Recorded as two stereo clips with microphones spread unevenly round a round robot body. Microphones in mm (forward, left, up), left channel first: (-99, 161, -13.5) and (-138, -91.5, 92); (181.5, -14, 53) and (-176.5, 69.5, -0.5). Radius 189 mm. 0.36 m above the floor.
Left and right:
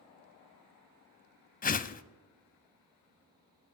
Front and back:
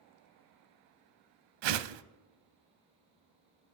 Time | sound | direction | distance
1.6 | a whoosh | 145° left | 0.6 m